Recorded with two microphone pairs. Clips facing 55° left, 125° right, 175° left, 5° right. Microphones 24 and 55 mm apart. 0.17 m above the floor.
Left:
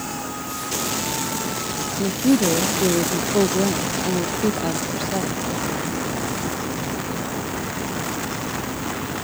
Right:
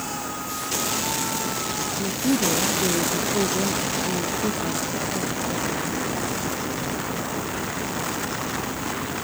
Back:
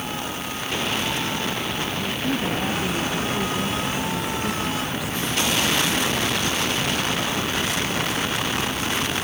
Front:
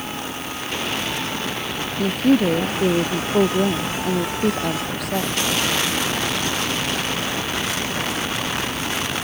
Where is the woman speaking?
25° left.